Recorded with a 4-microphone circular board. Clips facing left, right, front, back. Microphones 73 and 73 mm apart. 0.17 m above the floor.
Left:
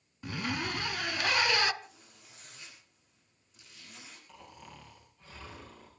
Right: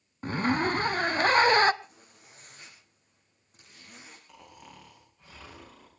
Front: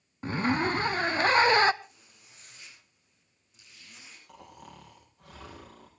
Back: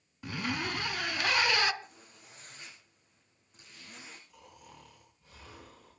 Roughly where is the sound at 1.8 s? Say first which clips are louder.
Right 1 dB, back 2 dB; behind right.